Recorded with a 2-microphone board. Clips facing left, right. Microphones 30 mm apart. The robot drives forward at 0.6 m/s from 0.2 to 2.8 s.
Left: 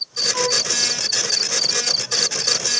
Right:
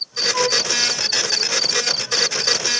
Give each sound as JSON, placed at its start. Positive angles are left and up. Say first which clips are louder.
{"t": 0.3, "sound": "a flute", "louder": "right 2 dB", "side_deg": -15, "distance_m": 4.5}